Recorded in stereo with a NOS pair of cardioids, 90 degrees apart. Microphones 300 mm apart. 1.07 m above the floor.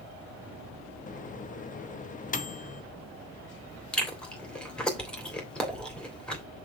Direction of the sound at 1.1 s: 25° left.